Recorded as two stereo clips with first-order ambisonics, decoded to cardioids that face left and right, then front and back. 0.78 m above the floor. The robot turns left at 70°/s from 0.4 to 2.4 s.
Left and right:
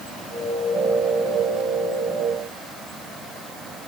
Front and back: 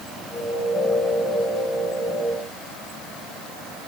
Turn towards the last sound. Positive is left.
No sound to turn to.